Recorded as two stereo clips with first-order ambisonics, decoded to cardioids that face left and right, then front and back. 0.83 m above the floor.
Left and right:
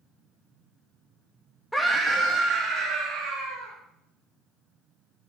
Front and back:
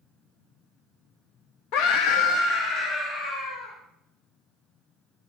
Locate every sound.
1.7 s a scream: 5° left, 0.6 m; by 3.8 s 40° right, 2.5 m